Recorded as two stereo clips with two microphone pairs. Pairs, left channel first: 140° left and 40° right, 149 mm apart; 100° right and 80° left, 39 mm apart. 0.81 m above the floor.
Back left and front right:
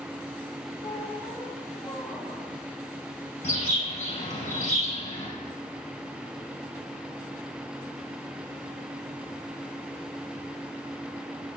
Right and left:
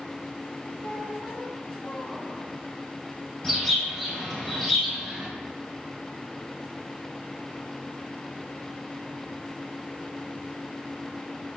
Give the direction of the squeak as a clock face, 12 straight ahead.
5 o'clock.